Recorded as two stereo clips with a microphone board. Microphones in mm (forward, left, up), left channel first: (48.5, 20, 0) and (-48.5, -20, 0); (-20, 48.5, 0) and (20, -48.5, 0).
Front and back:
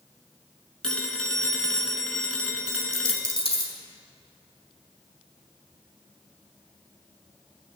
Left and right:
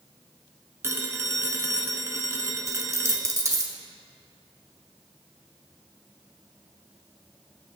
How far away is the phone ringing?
About 1.1 m.